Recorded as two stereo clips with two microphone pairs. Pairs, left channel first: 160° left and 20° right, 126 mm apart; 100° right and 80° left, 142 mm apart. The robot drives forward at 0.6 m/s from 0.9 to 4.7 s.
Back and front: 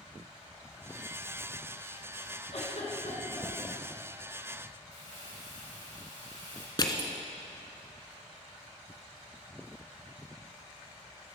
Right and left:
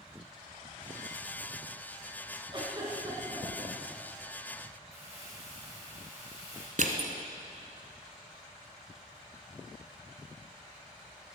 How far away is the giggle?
About 2.5 m.